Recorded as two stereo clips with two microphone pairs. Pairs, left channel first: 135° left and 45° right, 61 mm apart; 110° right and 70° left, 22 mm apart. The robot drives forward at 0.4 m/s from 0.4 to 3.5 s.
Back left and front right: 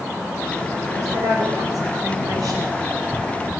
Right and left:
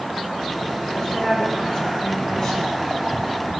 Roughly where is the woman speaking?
Ahead right.